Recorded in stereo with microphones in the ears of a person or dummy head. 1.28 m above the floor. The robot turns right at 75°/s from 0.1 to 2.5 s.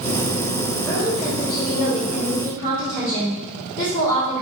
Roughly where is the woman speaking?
Ahead.